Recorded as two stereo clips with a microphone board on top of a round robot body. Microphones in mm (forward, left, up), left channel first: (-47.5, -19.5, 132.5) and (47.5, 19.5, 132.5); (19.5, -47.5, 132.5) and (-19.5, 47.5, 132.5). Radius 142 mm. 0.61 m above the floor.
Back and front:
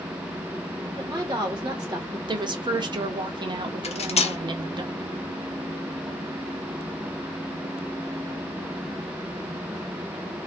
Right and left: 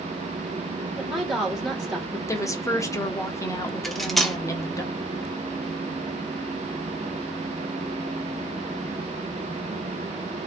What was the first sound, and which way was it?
A woman speaking, 30° left.